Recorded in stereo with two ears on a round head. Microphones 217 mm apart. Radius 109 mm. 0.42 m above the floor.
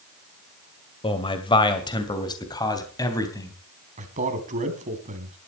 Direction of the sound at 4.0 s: 30° right (ahead or behind).